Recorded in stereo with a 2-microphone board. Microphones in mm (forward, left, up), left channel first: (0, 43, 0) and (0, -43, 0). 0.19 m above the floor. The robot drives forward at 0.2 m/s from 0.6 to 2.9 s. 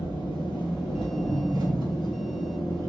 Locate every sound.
0.0 s an engine running: 75° left (ahead or behind), 1.6 m; by 2.9 s 65° left (ahead or behind), 1.7 m